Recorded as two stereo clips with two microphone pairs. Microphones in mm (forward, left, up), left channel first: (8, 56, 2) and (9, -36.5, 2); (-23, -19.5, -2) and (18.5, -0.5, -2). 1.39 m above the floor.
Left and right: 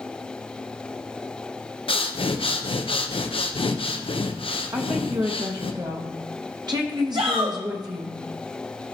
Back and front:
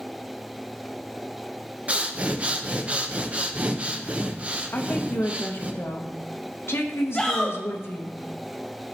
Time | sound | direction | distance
1.9 | breathing | 85° left | 0.7 m
4.7 | a woman speaking | 130° right | 1.1 m
7.1 | a shout | 80° right | 1.0 m